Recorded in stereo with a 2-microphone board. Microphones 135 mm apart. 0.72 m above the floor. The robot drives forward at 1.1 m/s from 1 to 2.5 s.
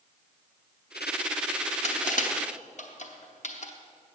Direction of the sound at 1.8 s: 60° left (ahead or behind).